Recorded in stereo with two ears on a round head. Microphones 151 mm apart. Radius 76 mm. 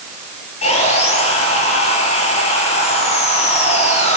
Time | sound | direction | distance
0.6 | sawing | 40° left (ahead or behind) | 9 m